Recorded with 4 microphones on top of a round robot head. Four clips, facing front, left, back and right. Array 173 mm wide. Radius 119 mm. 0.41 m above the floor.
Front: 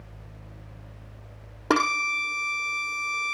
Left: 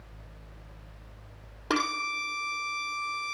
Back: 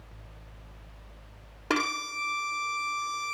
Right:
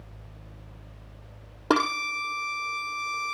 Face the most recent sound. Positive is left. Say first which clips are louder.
# right 5 dB, front 6 dB
turn(degrees=-50)